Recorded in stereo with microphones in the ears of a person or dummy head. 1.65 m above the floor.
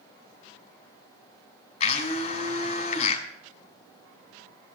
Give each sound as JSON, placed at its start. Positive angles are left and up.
{"t": 1.8, "sound": "a blender", "side_deg": 40, "distance_m": 2.5}